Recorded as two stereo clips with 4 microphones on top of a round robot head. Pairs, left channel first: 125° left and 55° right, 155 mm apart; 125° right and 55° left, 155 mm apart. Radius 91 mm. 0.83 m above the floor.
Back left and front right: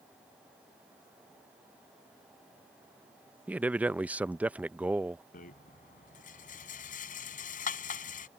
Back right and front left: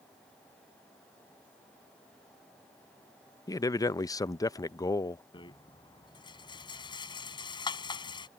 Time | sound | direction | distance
3.5 | a man speaking | 120° right | ?
5.3 | a rattle | 170° left | ?